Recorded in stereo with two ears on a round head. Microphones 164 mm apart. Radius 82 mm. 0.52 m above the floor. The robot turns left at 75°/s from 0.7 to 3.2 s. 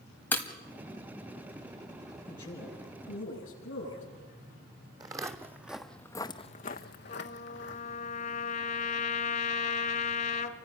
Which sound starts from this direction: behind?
A man speaking, at 2.3 s.